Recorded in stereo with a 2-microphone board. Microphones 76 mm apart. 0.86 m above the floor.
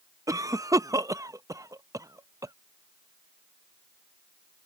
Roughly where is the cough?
Right.